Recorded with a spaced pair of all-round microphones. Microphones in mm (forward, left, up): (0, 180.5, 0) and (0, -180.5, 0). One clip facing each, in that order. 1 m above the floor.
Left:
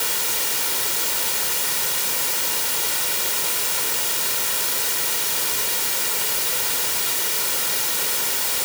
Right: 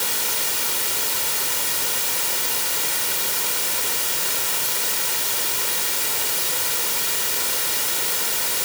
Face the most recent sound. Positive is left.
No sound to turn to.